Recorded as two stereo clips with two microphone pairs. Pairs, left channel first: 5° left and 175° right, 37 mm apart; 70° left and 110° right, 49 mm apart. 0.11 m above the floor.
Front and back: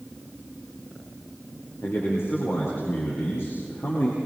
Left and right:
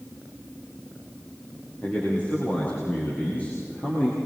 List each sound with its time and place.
1.8 s a man speaking: 10° left, 8 m